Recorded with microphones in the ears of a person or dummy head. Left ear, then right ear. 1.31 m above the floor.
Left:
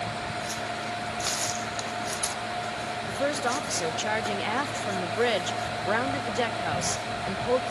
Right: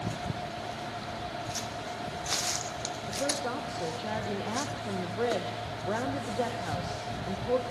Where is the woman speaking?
70° left (ahead or behind), 0.8 m.